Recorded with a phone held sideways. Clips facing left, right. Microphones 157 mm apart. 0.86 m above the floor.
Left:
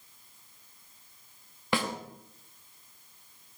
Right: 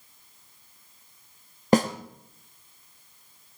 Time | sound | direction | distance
1.7 | a snare drum | 40° right (ahead or behind) | 1.2 m